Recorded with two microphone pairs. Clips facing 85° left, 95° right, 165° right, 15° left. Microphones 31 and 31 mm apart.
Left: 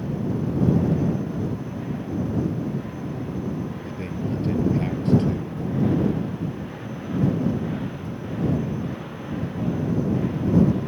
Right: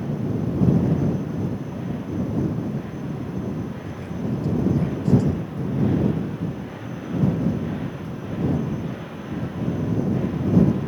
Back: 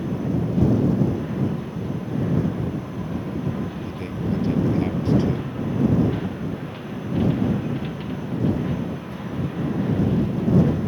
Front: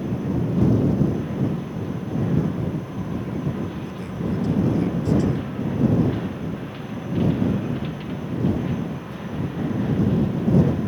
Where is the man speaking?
135° left.